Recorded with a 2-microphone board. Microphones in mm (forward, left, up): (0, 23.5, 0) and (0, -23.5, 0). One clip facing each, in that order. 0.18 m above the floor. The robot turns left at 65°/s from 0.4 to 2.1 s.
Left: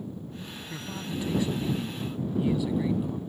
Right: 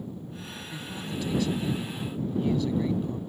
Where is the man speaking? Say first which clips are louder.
Left 1 dB; 20° left (ahead or behind); by 3.2 s 10° left (ahead or behind).